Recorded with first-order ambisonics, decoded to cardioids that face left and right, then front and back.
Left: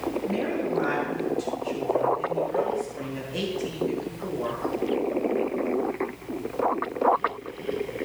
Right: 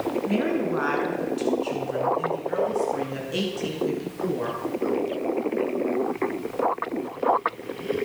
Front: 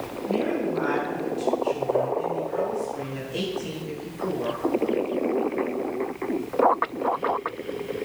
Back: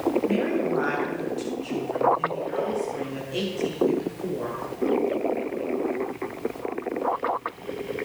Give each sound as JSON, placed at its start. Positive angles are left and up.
{"t": 0.2, "sound": "a woman speaking", "azimuth_deg": -110, "distance_m": 7.0}